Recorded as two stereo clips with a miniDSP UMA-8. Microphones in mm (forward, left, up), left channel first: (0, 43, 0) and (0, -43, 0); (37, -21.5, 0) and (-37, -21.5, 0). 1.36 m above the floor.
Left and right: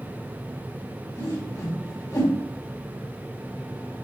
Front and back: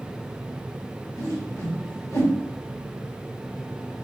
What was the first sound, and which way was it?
A whoosh, 45° left.